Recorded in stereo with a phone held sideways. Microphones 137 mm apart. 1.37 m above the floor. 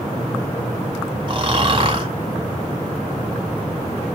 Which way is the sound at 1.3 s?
40° right (ahead or behind).